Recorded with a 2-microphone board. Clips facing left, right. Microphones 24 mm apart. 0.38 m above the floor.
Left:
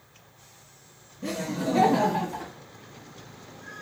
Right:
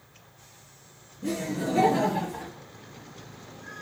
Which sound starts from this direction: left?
Laughter, at 1.2 s.